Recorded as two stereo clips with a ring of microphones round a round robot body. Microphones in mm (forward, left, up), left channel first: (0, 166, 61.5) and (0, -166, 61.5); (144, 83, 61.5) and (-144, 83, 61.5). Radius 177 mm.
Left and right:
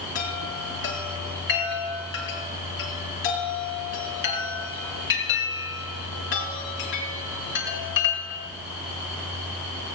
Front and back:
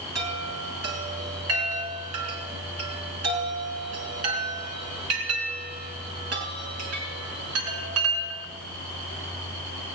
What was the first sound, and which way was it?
A chime, 145° left.